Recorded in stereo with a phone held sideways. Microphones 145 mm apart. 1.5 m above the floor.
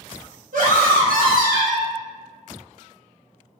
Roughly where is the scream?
Right.